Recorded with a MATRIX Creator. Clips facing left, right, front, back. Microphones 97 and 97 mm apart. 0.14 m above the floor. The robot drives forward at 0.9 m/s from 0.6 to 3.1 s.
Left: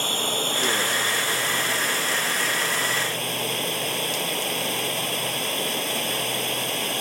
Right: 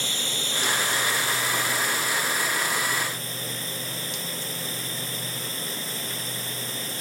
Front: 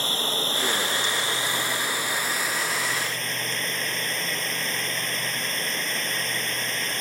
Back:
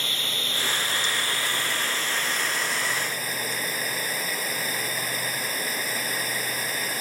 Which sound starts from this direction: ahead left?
Running water, at 0.0 s.